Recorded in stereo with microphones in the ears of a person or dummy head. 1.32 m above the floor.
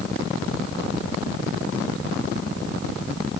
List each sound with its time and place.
Only background noise.